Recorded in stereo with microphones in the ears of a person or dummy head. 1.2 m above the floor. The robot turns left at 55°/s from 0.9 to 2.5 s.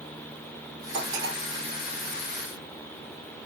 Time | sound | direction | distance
0.9 | cutlery clinking | 75° right (ahead or behind) | 2.5 m